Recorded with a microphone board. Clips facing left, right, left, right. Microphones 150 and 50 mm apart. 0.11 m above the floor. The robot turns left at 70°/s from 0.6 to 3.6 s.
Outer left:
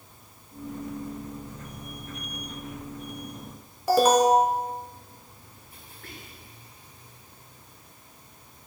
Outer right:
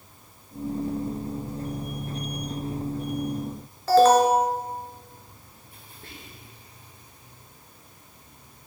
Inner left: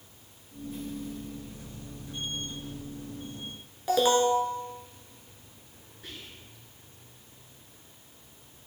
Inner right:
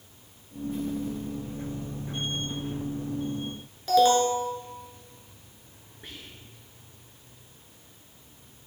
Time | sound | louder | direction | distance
3.9 | an alarm | outer right 2 dB, inner right 3 dB | 15° left (ahead or behind) | 0.9 m
6.0 | whispering | even, even | 25° right (ahead or behind) | 1.5 m